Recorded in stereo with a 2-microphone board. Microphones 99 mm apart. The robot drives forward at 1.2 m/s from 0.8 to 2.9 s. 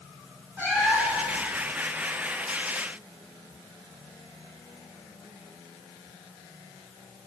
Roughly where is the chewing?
I don't hear chewing.